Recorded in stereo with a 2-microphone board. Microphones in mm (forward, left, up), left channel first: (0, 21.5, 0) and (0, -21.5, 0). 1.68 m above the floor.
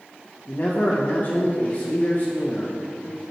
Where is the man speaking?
40° left (ahead or behind), 1.6 m.